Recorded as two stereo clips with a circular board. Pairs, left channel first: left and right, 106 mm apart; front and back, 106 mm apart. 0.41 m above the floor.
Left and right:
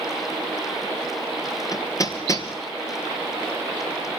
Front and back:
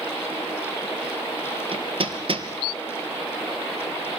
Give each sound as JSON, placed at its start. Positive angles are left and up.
{"t": 1.7, "sound": "hammering", "azimuth_deg": 145, "distance_m": 2.5}